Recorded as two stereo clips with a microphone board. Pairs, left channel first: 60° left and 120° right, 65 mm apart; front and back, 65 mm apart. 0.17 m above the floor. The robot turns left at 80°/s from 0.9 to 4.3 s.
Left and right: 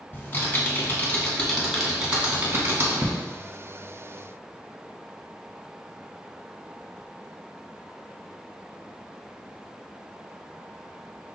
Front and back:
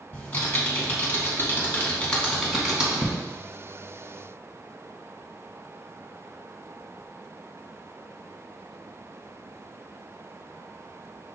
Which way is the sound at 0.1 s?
35° left.